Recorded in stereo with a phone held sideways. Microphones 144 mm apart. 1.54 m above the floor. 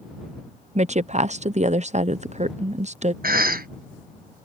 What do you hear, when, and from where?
0.8 s a woman speaking: 50° right (ahead or behind)
3.2 s a cough: 85° right